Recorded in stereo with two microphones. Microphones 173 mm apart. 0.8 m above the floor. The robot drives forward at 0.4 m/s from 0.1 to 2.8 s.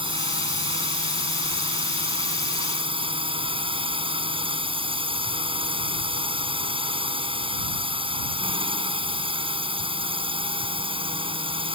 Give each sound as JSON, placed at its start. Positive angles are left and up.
{"t": 0.0, "sound": "a drone", "side_deg": -30}